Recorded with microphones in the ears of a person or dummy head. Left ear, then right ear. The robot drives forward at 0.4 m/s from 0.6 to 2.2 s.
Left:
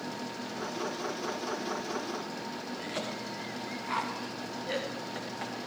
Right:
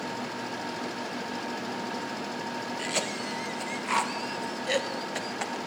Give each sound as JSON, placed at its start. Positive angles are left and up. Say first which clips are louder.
{"t": 2.8, "sound": "a cough", "louder": "right 6 dB", "side_deg": -65, "distance_m": 1.1}